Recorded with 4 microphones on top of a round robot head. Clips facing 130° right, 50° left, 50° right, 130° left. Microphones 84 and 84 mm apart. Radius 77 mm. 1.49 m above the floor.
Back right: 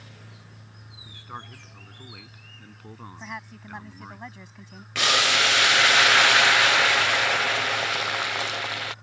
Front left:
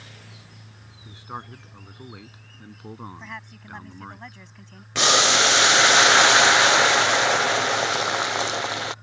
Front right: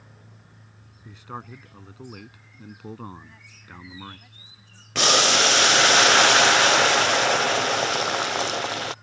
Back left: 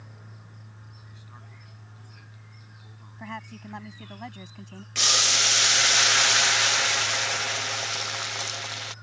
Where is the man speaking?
20° right.